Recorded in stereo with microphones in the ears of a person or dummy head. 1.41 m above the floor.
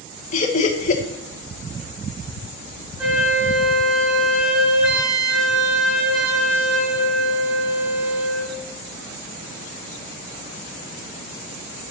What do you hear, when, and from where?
0.3 s laughter: 35° left (ahead or behind), 1.2 m
3.0 s a flute: 10° right (ahead or behind), 5.5 m